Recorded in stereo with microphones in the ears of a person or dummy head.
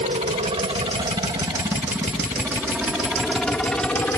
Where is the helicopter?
30° right (ahead or behind); by 4.2 s 10° left (ahead or behind).